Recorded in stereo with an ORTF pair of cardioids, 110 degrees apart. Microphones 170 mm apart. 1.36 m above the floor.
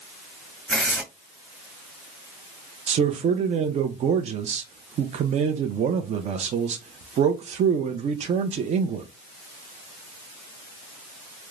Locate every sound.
0.7 s tearing paper: straight ahead, 1.9 m
2.9 s a man speaking: 45° right, 0.5 m